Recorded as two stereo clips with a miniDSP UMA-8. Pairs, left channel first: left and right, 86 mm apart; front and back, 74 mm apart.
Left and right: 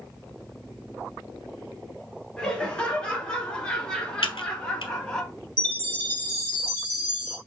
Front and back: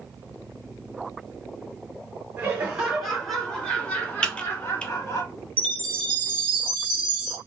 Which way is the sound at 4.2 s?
80° left.